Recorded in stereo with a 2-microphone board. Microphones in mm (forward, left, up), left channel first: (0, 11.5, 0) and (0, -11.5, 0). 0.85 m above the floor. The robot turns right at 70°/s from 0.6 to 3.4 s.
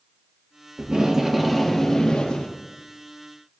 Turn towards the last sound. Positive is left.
turn(degrees=135)